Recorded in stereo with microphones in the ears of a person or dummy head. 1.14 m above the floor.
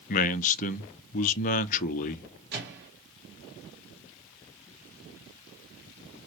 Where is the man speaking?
40° left (ahead or behind), 0.5 m.